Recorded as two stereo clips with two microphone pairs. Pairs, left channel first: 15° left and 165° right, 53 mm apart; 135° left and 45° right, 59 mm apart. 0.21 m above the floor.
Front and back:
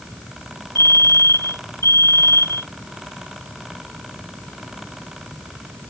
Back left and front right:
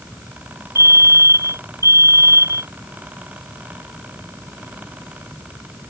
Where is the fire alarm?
15° right.